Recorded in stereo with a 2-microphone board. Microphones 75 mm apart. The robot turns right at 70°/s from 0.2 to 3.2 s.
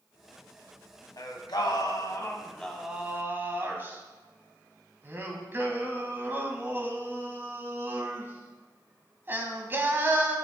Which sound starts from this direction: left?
Singing, at 1.2 s.